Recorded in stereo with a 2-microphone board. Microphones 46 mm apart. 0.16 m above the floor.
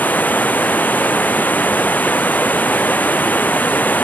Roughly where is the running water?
Left.